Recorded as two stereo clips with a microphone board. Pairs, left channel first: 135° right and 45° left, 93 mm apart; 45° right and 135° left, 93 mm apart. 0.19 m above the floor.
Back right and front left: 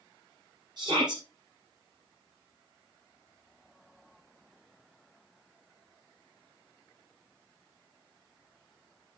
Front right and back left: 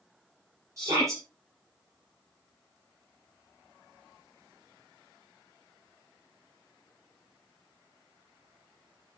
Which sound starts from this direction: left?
A shout, at 0.8 s.